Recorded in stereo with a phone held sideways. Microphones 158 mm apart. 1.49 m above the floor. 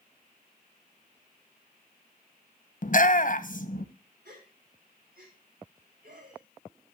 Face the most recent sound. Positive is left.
turn(degrees=-75)  # may be behind; listen again after turning